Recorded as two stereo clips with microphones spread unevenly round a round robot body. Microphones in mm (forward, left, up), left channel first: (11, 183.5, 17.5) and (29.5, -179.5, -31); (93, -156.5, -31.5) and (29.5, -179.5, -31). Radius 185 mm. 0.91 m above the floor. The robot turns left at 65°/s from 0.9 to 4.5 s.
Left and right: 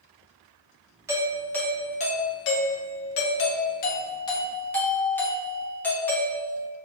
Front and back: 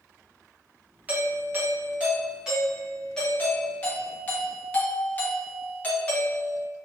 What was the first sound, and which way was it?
A doorbell, 140° right.